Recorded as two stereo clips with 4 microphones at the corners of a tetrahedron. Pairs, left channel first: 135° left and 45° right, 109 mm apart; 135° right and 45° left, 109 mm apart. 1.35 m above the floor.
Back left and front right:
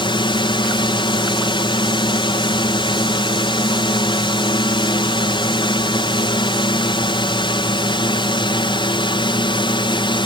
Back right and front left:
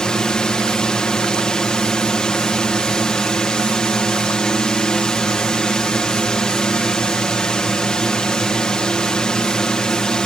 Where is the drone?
145° left.